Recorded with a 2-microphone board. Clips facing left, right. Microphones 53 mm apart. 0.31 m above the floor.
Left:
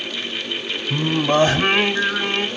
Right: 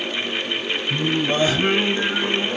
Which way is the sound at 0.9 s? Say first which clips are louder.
Left 4 dB; 65° left (ahead or behind).